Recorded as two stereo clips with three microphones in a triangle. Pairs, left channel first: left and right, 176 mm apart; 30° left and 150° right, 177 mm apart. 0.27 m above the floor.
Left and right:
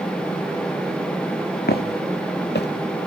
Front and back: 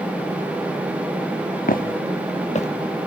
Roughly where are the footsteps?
Ahead left.